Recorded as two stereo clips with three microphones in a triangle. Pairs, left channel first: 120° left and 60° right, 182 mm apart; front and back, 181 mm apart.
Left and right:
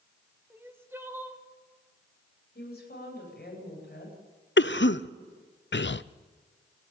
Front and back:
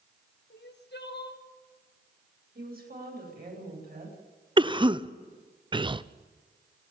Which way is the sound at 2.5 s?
150° left.